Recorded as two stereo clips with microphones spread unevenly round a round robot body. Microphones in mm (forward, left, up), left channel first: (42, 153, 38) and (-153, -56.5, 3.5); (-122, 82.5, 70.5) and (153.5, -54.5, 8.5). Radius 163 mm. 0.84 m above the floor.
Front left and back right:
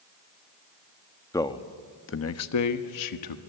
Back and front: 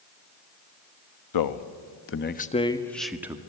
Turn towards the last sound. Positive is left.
turn(degrees=50)